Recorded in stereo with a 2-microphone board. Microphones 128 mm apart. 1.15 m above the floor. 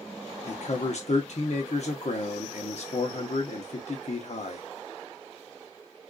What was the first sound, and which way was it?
A man speaking, 60° left (ahead or behind).